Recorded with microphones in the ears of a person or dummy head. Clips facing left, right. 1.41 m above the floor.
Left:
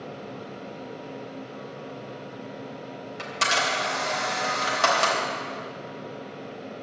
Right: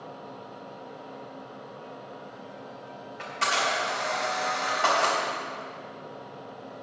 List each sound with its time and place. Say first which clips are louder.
3.2 s a camera shutter: left 1 dB; 65° left (ahead or behind), 3.5 m